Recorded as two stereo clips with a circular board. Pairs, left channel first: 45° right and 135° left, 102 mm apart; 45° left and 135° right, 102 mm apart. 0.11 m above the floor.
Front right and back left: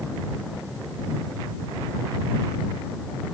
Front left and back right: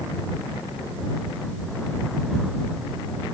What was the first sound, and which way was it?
Only background noise.